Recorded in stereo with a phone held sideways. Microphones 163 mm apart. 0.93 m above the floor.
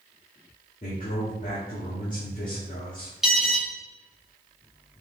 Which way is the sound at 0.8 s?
55° left (ahead or behind).